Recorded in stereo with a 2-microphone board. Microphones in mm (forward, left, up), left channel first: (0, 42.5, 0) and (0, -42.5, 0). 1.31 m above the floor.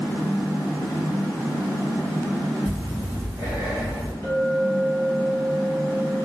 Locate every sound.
2.6 s breathing: 80° right, 1.8 m
4.2 s a clink: 65° right (ahead or behind), 1.5 m